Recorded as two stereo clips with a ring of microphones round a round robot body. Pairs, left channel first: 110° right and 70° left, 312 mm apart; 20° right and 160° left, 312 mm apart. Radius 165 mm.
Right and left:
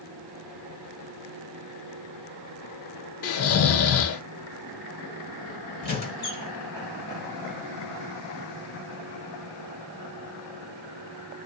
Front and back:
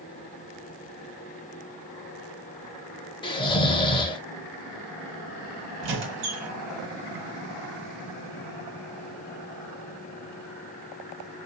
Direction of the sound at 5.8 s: 175° right.